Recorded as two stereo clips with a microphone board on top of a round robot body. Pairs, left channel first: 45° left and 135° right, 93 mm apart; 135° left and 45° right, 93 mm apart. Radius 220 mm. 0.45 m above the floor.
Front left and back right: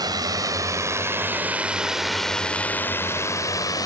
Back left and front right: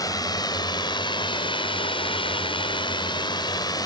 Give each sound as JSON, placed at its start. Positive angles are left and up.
{"t": 0.0, "sound": "a drone", "azimuth_deg": -175}